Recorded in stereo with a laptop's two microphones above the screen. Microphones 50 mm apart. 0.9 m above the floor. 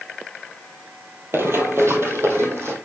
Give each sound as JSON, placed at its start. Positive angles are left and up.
{"t": 1.3, "sound": "running footsteps", "side_deg": -50, "distance_m": 1.3}